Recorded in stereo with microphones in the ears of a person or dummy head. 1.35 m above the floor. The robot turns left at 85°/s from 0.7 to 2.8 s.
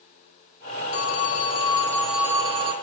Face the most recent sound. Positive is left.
turn(degrees=-55)